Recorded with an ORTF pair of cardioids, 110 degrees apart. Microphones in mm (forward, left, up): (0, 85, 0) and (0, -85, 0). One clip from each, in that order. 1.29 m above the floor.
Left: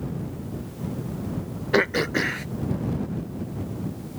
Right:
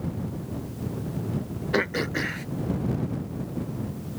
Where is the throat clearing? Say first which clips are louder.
Left 4 dB; 20° left.